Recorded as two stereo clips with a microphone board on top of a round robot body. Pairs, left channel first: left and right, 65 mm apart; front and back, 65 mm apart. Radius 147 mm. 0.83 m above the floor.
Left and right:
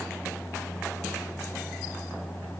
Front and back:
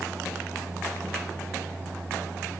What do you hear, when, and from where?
Only background noise.